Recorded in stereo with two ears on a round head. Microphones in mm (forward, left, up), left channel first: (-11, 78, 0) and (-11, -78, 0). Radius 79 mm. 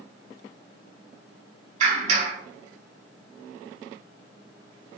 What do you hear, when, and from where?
1.8 s a clap: 45° right (ahead or behind), 4.5 m